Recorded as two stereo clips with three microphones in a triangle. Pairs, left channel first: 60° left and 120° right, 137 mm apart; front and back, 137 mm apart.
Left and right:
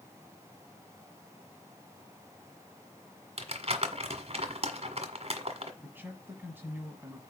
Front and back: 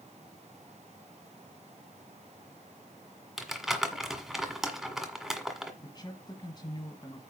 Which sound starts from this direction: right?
Crumpling, at 3.4 s.